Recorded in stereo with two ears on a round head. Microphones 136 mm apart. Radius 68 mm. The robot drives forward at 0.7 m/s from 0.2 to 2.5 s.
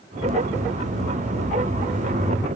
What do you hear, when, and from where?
Only background noise.